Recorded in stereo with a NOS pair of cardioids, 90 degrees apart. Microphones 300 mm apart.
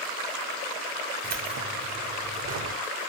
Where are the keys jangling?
60° right, 3 m.